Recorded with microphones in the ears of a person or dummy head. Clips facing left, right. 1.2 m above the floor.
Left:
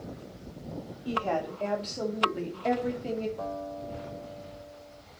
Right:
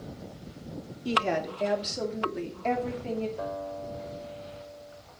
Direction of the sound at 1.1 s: 35° right (ahead or behind).